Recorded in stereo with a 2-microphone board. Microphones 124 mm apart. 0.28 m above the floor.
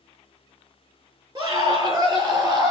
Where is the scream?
30° right (ahead or behind), 6 m.